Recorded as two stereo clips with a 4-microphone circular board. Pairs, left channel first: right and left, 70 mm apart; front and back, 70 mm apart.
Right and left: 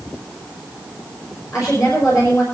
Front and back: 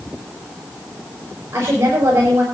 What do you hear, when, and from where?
1.5 s a woman speaking: 130° right, 5.5 m